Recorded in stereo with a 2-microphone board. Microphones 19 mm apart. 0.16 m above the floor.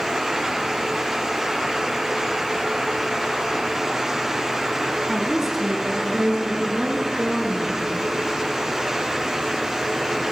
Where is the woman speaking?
20° right (ahead or behind), 1.4 m; by 7.9 s 60° right (ahead or behind), 3 m.